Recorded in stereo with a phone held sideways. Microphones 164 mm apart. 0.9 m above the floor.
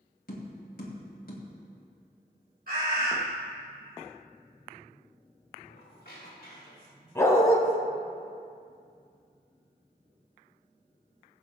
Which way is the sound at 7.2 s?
15° left (ahead or behind).